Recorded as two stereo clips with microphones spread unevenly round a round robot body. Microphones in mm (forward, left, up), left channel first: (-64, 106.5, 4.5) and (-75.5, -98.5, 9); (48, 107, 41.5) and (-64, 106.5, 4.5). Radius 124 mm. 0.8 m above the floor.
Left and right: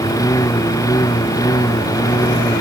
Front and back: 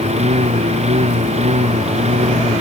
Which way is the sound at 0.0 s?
160° left.